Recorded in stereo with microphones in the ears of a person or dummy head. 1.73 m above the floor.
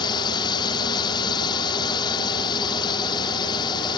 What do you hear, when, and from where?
0.0 s a drone: 30° left (ahead or behind)